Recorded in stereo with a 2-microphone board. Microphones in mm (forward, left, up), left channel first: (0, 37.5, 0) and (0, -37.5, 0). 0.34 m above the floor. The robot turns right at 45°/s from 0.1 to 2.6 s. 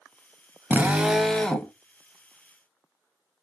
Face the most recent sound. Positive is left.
turn(degrees=60)